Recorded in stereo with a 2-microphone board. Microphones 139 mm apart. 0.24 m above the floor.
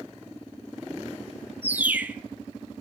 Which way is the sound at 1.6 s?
15° right (ahead or behind).